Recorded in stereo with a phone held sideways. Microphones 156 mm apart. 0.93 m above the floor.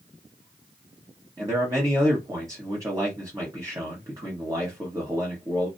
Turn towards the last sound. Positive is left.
turn(degrees=-20)  # may be behind; listen again after turning